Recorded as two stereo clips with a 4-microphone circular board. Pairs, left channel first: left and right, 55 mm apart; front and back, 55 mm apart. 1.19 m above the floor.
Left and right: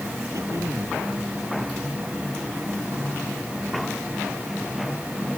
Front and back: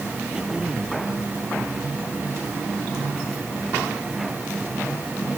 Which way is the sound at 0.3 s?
105° right.